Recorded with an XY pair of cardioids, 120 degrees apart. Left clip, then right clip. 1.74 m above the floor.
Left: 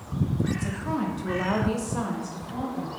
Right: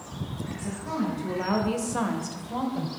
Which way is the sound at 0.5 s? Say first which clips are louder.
Left 2 dB; 40° left.